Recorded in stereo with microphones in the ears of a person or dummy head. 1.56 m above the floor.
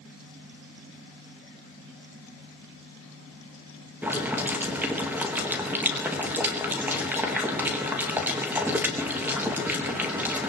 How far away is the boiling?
About 1.9 m.